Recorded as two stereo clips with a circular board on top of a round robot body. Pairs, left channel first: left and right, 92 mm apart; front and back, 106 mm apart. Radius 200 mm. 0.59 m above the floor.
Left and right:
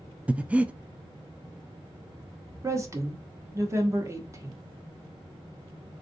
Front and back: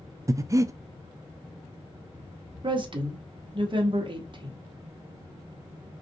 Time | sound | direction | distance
0.3 | breathing | 155° right | 0.5 m
2.6 | a woman speaking | 145° right | 1.0 m